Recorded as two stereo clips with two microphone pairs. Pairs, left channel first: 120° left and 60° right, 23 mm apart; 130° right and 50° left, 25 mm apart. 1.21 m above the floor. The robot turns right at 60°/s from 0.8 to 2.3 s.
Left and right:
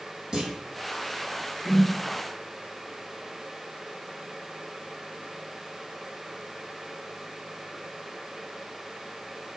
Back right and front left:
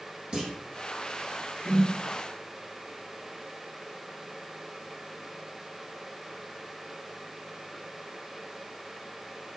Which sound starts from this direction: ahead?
A clunk, at 0.3 s.